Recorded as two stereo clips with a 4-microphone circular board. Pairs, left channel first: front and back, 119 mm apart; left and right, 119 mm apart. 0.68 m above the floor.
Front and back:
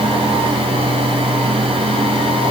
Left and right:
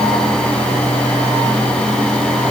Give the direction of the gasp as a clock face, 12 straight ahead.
No gasp in this recording.